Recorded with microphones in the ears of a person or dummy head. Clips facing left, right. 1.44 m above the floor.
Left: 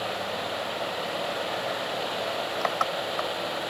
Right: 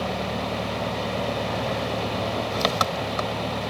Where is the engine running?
45° right (ahead or behind).